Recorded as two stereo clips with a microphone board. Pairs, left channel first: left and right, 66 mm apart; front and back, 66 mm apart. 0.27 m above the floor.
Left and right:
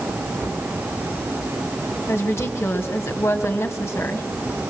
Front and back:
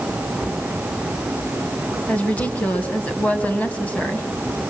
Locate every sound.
2.1 s a woman speaking: 65° left, 2.0 m